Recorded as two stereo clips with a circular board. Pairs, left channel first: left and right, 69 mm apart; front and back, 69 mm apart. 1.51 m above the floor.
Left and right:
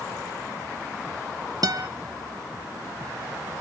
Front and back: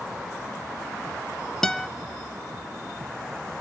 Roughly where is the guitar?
Right.